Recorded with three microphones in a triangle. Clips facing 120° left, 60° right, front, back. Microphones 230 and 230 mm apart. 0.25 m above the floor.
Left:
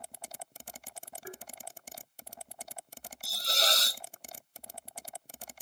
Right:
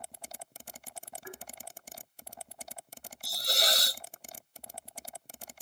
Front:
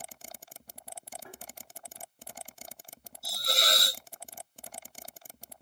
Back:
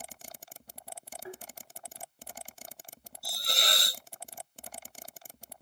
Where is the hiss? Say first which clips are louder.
Even, front 3 dB; 15° left, 0.7 m.